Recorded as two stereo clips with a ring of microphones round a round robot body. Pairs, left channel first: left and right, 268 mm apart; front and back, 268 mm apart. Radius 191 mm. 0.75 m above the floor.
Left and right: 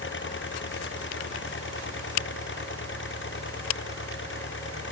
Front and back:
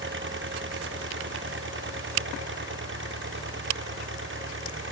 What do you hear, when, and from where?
0.0 s an engine running: 135° left